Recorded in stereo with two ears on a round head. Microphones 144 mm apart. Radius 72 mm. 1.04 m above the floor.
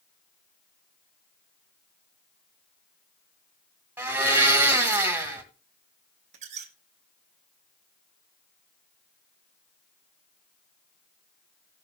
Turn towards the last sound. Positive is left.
turn(degrees=-45)  # may be behind; listen again after turning